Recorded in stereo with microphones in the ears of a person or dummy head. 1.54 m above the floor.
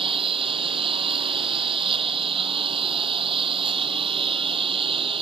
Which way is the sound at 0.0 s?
30° right (ahead or behind).